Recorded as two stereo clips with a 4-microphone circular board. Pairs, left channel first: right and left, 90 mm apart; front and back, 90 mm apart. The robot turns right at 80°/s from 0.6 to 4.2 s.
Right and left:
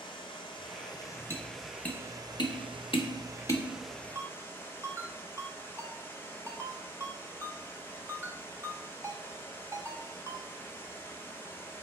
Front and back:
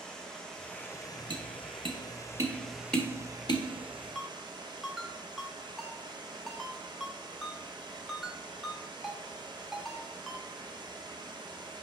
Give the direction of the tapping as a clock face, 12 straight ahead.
7 o'clock.